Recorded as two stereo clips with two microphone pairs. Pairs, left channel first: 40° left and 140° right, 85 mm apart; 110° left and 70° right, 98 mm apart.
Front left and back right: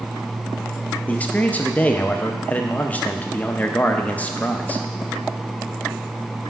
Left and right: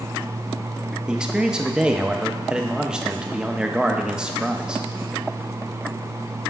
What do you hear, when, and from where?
1.1 s a man speaking: straight ahead, 0.6 m